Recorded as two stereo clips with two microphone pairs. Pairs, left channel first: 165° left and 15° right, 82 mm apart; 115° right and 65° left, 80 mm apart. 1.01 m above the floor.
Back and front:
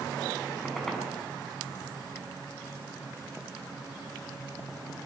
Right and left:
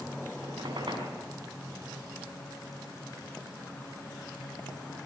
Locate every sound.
0.4 s a squeak: 75° left, 6 m